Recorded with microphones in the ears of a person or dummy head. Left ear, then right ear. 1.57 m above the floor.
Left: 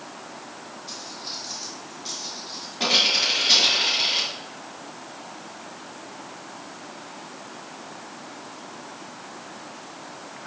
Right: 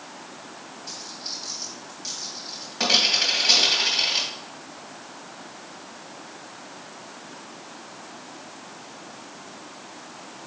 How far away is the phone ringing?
No phone ringing in this recording.